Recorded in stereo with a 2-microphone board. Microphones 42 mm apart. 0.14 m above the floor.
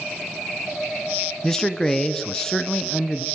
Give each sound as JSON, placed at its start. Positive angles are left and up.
{"t": 1.4, "sound": "a man speaking", "side_deg": 10, "distance_m": 1.4}